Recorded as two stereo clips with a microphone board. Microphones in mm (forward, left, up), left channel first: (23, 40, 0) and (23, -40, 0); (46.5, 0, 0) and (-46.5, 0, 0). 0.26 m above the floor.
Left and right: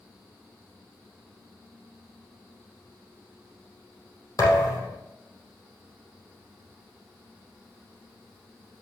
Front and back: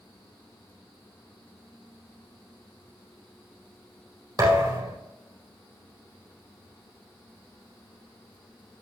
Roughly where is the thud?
Behind left.